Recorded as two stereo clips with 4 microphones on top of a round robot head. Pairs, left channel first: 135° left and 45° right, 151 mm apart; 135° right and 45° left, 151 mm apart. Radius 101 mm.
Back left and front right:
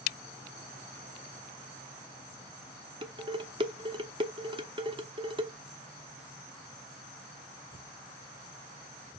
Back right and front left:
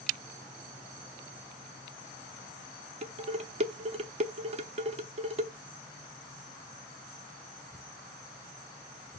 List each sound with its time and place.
3.0 s dishes clattering: 5° left, 1.1 m